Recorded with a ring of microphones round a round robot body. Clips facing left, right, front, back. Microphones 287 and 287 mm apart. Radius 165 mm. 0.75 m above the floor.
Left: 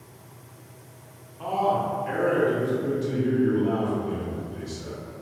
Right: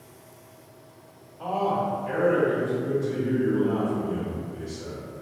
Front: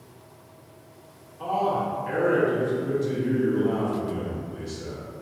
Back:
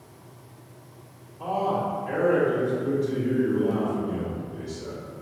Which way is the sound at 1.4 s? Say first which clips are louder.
Even, even; 40° left.